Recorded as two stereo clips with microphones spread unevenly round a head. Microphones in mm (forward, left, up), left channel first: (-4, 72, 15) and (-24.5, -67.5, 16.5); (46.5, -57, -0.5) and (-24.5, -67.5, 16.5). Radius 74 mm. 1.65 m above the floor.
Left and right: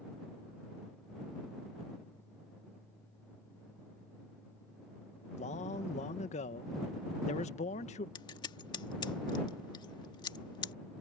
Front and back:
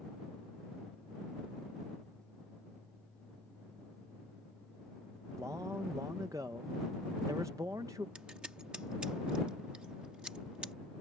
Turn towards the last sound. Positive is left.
turn(degrees=130)